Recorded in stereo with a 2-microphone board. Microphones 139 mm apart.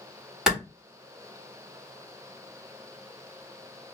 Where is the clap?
5° right (ahead or behind), 1.6 m.